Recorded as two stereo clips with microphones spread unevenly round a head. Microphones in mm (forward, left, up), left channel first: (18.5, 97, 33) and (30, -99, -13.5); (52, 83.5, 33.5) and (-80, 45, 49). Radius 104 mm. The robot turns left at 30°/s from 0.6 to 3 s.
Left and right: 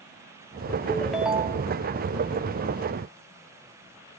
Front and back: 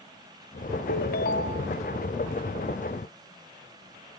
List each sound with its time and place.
0.9 s a ringtone: 10° left, 1.2 m; by 1.7 s 15° right, 1.2 m